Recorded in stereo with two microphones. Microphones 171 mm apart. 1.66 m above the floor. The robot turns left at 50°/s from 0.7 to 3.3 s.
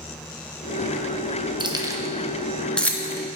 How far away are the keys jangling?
About 0.7 m.